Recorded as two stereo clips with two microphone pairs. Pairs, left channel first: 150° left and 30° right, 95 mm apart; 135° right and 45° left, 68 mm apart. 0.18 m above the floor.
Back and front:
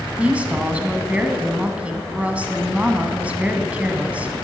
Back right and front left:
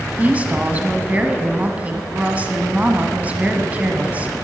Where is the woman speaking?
25° left, 1.1 m.